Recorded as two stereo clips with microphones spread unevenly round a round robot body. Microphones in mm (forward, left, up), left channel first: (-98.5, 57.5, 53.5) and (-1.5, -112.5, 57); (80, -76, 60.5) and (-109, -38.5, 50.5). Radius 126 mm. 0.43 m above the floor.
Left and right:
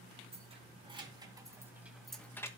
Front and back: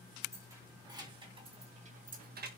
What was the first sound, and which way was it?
Keys jangling, 115° right.